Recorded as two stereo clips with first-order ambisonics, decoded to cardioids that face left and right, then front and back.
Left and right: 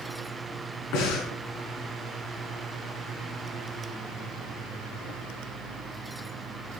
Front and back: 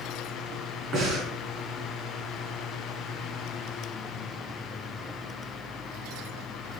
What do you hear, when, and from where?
0.9 s breathing: 120° left, 4 m